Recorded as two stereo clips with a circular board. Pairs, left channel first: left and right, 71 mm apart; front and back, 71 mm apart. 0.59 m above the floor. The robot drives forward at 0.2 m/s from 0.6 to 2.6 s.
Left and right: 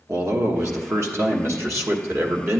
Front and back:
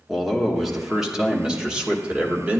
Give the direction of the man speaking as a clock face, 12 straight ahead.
3 o'clock.